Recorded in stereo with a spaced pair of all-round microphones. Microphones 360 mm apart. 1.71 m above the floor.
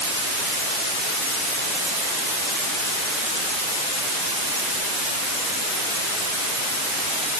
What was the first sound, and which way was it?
Only background noise.